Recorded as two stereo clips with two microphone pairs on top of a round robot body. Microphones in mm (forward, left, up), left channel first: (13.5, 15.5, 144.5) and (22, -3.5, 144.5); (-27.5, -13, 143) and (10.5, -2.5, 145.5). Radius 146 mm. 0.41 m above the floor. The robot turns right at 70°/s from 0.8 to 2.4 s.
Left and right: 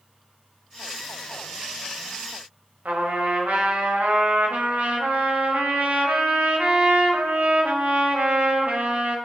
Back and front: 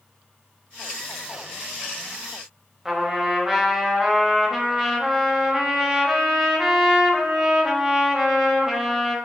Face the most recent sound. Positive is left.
turn(degrees=-65)